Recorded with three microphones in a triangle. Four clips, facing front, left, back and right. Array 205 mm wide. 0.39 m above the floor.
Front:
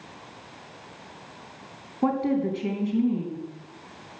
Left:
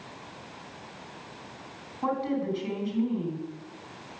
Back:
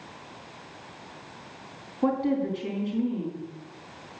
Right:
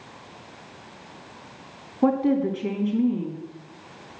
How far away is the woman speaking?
About 3 m.